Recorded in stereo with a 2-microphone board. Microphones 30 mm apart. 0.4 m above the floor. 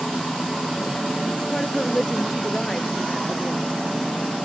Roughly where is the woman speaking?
Left.